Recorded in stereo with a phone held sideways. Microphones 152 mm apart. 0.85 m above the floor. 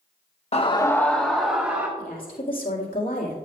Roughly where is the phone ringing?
No phone ringing in this recording.